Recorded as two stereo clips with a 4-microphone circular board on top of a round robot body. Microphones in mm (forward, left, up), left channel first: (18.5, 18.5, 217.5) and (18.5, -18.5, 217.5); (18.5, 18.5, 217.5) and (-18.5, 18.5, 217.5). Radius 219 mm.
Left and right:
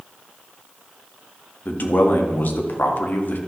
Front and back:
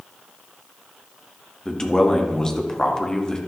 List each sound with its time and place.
1.6 s a man speaking: 70° left, 2 m